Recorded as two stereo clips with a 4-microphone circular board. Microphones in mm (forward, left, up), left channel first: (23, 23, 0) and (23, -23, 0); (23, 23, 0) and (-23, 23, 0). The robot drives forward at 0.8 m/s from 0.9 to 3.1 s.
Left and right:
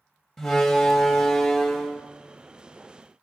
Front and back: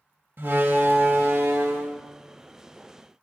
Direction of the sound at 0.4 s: 175° left.